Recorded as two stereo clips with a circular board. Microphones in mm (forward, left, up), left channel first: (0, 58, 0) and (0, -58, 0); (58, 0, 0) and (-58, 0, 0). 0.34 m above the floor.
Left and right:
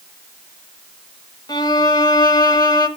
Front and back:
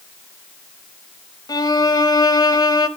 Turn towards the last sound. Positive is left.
turn(degrees=45)